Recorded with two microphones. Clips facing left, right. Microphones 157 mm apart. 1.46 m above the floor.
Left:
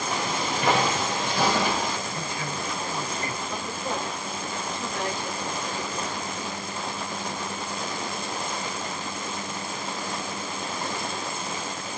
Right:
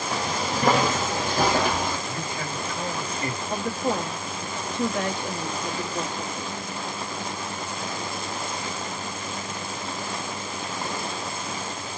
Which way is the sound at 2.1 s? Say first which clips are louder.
Right 1 dB; 60° right (ahead or behind).